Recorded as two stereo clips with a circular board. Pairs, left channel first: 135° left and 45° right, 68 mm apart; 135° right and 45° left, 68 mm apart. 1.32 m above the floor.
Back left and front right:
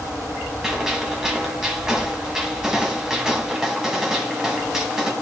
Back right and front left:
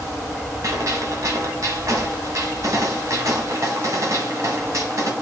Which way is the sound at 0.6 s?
35° left.